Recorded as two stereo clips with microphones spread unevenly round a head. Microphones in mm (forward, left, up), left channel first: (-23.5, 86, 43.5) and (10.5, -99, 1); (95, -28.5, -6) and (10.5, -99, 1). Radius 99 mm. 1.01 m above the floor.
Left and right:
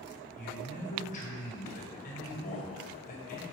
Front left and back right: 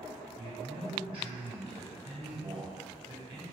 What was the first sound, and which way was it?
A man speaking, 155° left.